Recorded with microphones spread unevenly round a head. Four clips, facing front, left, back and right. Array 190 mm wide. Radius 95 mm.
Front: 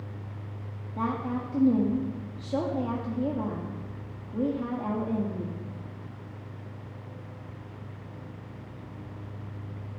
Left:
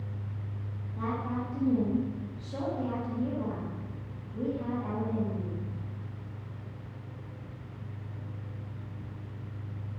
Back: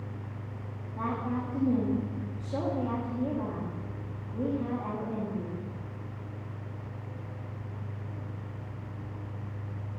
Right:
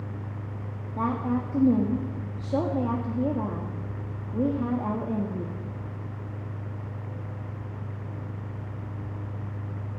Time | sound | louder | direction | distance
1.0 | a woman speaking | right 6 dB, front 2 dB | 70° right | 2 m